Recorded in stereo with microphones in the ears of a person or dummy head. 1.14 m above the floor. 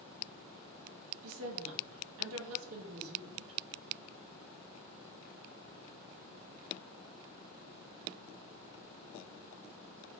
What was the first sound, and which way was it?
A woman speaking, 80° right.